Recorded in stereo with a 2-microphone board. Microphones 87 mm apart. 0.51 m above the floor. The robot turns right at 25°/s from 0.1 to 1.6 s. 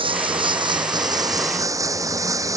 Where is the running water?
75° right; by 2.6 s 35° right.